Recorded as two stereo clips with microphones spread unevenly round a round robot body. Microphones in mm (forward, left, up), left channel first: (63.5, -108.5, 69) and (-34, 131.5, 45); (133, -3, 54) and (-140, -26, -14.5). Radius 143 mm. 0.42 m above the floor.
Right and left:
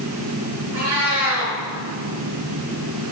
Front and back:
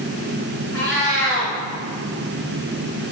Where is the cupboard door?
No cupboard door in this recording.